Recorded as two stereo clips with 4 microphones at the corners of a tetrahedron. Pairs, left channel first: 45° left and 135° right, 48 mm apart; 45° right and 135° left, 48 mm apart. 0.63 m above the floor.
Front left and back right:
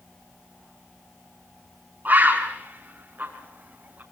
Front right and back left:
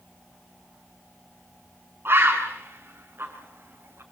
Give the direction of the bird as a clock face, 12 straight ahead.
6 o'clock.